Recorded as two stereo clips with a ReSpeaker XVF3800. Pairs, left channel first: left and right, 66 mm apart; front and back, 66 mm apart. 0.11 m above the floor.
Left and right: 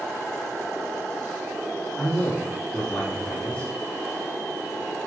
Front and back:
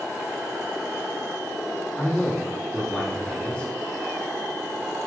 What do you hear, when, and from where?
2.0 s a man speaking: 50° left, 1.3 m